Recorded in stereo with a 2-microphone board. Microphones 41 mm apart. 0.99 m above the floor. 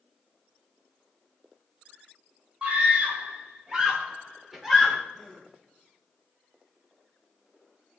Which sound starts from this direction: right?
A scream, at 2.6 s.